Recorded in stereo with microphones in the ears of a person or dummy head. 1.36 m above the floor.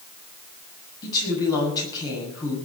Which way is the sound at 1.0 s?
20° left (ahead or behind).